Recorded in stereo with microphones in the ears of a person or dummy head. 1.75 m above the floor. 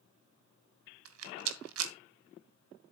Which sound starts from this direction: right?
A rattle, at 1.1 s.